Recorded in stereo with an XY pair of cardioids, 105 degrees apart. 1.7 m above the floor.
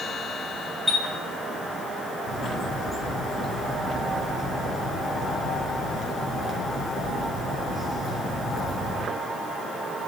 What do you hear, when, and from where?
0.9 s a chime: straight ahead, 3 m
2.2 s a bird: 5° right, 5 m